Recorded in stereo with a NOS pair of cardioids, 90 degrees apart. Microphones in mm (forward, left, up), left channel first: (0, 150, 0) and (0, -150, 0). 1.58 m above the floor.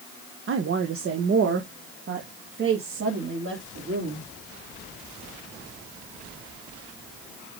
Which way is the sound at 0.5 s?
45° right.